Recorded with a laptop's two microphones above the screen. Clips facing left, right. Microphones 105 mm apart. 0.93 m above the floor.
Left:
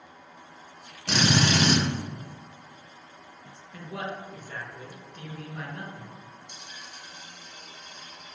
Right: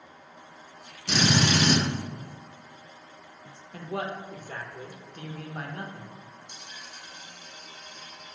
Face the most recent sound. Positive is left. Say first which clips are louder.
# even
turn(degrees=60)  # may be behind; listen again after turning